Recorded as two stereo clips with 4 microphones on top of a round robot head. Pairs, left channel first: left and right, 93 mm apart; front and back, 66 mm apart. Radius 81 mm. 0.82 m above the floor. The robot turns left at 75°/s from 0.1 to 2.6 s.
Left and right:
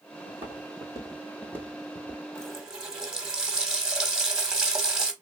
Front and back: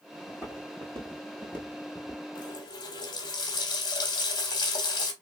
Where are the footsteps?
95° right, 1.5 m; by 2.2 s 50° right, 0.8 m.